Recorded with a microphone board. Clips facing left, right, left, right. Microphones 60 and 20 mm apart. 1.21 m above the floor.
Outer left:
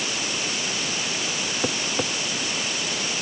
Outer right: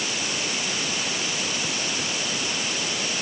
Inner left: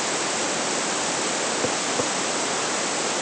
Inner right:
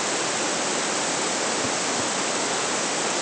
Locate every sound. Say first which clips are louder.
1.6 s tapping: outer left 3 dB, inner left 1 dB; 45° left (ahead or behind)